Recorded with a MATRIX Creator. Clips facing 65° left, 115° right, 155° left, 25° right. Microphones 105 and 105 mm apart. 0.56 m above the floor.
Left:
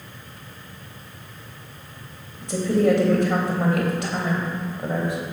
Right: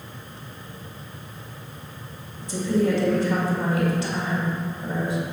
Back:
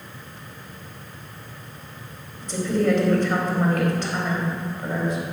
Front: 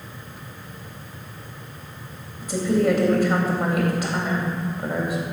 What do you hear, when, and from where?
2.4 s a woman speaking: 60° left, 3 m